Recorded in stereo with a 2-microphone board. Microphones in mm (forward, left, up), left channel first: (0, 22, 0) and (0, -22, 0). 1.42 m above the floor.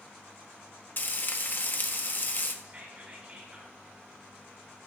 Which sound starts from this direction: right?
Whispering, at 2.6 s.